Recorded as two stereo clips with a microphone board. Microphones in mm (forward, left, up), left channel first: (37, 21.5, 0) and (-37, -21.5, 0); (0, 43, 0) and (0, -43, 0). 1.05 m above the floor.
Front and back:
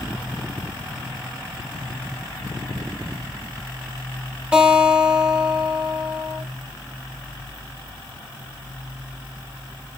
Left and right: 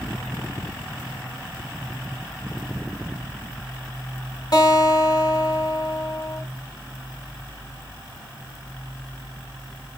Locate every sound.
4.5 s a guitar: 135° left, 2.5 m